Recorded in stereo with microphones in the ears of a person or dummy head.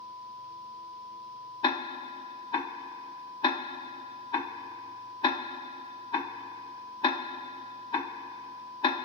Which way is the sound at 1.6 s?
20° left (ahead or behind).